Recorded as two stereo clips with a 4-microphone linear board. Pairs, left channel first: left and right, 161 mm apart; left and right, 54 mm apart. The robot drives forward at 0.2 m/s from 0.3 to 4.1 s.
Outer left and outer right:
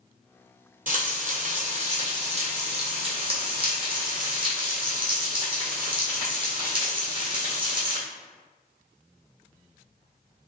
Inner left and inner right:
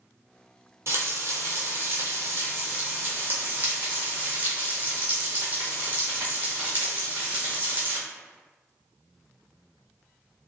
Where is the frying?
55° right (ahead or behind), 0.8 m; by 8.0 s 30° right (ahead or behind), 1.3 m.